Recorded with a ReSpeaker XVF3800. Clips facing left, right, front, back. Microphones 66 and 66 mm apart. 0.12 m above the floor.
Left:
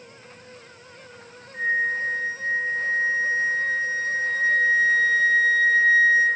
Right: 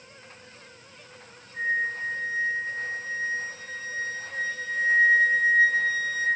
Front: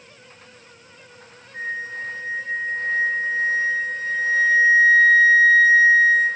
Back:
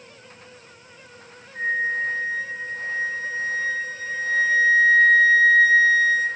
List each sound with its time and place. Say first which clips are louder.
1.5 s a flute: left 4 dB, back 5 dB; 55° left, 1.5 m